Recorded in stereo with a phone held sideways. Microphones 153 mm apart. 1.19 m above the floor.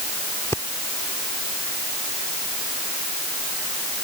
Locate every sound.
0.5 s breathing: 20° left (ahead or behind)